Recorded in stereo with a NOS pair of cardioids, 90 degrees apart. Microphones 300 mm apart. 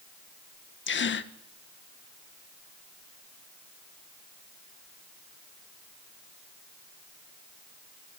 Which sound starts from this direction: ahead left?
A gasp, at 0.9 s.